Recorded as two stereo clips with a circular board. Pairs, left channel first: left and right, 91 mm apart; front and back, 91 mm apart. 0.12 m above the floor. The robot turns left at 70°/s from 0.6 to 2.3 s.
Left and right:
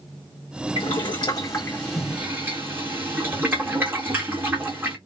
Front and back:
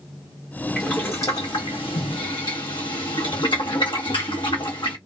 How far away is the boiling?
About 1.8 m.